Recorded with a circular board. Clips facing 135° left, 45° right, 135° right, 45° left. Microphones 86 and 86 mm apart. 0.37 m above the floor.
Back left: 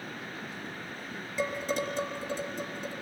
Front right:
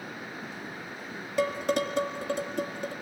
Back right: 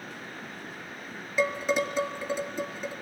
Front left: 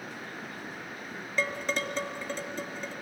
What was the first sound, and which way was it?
Dishes clattering, 55° right.